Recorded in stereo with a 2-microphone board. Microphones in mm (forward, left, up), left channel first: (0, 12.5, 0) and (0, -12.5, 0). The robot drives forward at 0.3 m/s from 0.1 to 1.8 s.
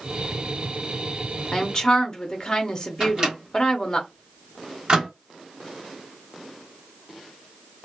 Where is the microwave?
30° right (ahead or behind), 1.1 m.